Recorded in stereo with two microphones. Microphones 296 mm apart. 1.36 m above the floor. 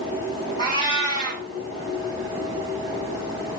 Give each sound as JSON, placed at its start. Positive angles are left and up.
{"t": 0.6, "sound": "a cat meowing", "side_deg": 15, "distance_m": 4.0}